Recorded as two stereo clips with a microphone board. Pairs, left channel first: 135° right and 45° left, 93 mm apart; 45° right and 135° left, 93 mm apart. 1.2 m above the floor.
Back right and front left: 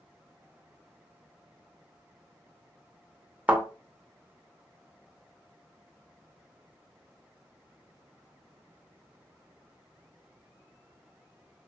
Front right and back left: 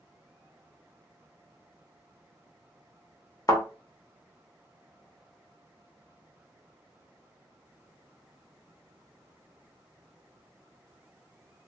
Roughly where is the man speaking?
No man speaking in this recording.